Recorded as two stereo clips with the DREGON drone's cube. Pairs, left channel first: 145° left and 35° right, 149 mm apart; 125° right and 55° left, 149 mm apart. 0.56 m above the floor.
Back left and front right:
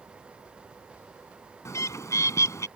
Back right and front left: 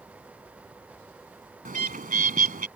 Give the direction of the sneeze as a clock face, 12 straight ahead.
I don't hear a sneeze.